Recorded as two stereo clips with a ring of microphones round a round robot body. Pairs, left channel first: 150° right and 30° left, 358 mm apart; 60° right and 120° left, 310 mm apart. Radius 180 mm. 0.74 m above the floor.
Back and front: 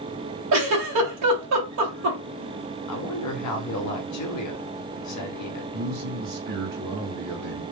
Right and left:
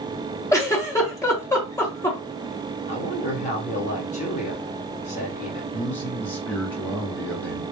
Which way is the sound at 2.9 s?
125° right.